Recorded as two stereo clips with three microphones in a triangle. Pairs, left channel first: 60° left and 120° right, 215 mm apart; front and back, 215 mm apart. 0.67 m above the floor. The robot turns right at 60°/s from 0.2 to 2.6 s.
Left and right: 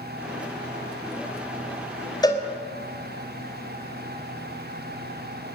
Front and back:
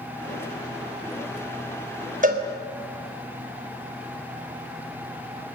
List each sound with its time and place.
2.2 s a cowbell: 130° left, 3.5 m; by 2.5 s 145° left, 3.5 m